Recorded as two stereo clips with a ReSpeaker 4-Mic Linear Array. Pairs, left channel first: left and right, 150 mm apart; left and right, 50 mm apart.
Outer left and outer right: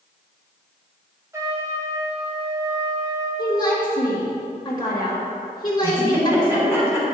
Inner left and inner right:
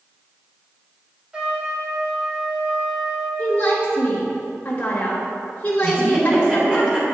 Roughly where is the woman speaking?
Left.